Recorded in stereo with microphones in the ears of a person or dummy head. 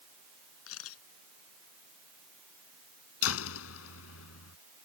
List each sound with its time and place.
0.7 s a camera shutter: 85° left
3.2 s a door slam: 85° left